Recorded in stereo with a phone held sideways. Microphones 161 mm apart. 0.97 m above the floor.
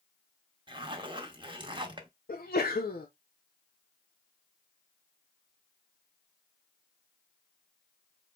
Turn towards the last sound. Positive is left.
turn(degrees=65)  # may be behind; listen again after turning